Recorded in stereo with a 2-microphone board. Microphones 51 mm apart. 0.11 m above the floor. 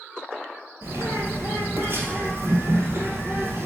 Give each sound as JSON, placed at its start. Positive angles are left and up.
{"t": 0.8, "sound": "a bird", "side_deg": -50, "distance_m": 1.5}